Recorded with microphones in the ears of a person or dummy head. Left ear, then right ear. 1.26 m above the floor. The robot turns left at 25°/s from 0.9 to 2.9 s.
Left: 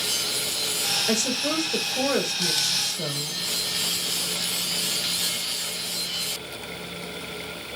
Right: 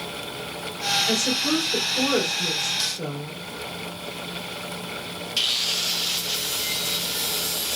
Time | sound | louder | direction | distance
1.1 | a woman speaking | right 2 dB | 45° left | 3 m